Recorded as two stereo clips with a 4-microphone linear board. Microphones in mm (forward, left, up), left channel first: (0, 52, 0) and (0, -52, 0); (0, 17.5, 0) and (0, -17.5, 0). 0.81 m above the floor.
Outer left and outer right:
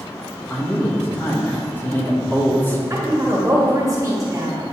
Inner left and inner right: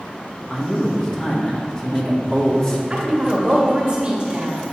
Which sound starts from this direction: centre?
A man speaking, at 0.5 s.